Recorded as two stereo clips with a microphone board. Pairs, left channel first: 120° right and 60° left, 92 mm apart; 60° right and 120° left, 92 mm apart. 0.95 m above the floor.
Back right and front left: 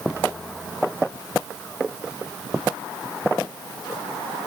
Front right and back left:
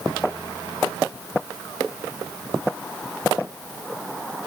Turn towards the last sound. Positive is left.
No sound to turn to.